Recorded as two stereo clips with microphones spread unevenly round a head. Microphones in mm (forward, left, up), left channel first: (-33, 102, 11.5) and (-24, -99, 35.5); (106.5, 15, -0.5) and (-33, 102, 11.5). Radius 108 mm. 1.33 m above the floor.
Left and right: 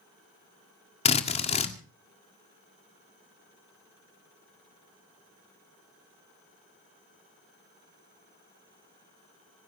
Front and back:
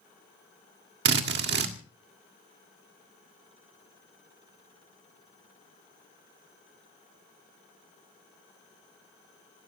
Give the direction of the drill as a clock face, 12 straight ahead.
7 o'clock.